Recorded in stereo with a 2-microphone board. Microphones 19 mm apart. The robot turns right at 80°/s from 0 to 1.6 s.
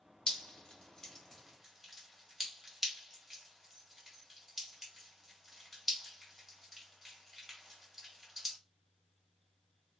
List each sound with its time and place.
0.3 s dripping: 60° left (ahead or behind), 1.3 m; by 8.6 s 10° right (ahead or behind), 1.3 m